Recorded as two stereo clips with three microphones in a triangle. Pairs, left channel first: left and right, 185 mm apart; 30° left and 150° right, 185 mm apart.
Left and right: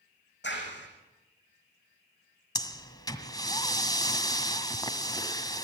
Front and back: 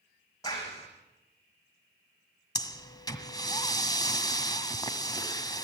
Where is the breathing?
60° left, 1.4 m.